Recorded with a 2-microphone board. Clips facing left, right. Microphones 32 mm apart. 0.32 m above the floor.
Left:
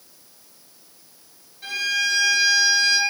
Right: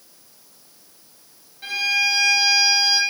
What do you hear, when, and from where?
1.6 s a violin: 20° right (ahead or behind), 0.5 m